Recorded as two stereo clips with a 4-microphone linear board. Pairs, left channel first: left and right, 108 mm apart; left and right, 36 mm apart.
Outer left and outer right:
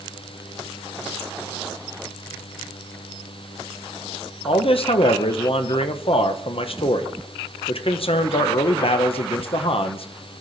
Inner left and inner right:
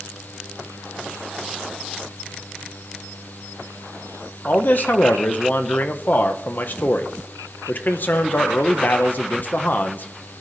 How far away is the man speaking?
About 0.9 m.